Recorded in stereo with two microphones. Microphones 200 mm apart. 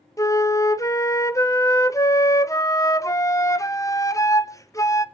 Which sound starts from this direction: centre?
A flute, at 0.2 s.